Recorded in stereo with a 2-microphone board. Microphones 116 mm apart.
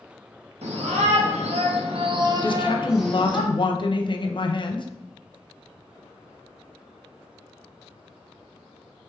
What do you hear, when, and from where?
0.6 s a shout: 85° right, 1.4 m; by 3.4 s 15° left (ahead or behind), 0.9 m
2.4 s a woman speaking: 45° left (ahead or behind), 0.5 m